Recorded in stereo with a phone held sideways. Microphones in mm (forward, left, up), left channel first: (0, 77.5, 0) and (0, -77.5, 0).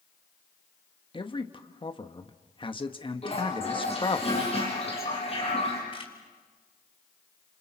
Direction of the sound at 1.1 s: 35° left (ahead or behind).